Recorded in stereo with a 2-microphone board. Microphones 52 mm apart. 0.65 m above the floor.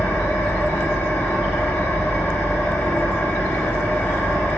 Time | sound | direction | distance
0.0 | an engine running | 55° left (ahead or behind) | 0.9 m